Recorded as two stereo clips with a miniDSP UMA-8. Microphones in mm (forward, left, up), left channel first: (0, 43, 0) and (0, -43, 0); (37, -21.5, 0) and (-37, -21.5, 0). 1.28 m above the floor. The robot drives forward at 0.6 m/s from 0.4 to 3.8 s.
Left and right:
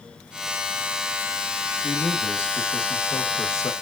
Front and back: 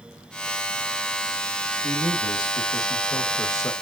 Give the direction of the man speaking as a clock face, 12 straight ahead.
11 o'clock.